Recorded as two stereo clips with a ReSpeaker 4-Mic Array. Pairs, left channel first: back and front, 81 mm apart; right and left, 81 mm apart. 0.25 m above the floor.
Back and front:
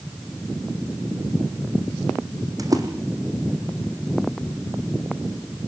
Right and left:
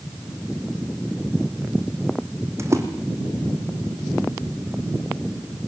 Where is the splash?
40° left, 3.5 m.